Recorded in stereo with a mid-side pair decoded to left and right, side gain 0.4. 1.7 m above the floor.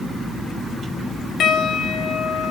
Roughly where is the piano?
Left.